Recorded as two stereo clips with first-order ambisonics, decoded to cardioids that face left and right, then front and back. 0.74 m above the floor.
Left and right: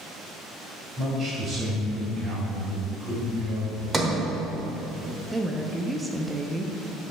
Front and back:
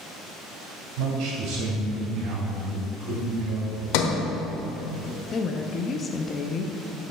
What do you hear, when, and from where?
1.0 s a man speaking: 160° right, 3 m; by 3.8 s 145° right, 4.5 m
3.9 s a sliding door: 15° right, 0.9 m
5.3 s a woman speaking: 20° right, 0.6 m